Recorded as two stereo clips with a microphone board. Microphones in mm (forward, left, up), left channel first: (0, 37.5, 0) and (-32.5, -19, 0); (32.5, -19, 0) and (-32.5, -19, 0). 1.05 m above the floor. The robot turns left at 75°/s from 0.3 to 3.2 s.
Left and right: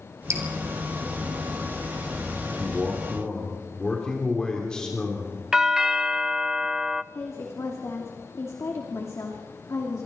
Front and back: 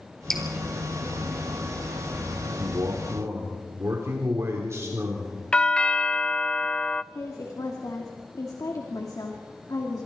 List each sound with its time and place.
0.3 s dripping: 85° right, 3.5 m; by 0.4 s 90° right, 3.5 m
2.6 s a man speaking: 175° right, 3.5 m; by 5.4 s 140° left, 3.5 m
5.5 s a doorbell: 55° right, 0.5 m
7.1 s a woman speaking: 20° left, 2.5 m